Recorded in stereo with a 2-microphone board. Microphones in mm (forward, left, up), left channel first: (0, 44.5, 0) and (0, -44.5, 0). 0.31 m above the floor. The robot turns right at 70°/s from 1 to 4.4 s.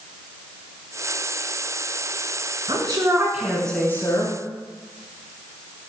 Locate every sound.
2.7 s a woman speaking: 65° right, 2.5 m; by 4.4 s 55° left, 2.5 m